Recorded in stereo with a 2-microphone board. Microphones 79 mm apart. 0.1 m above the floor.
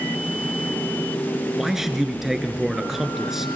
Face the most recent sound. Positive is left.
turn(degrees=-5)  # may be behind; listen again after turning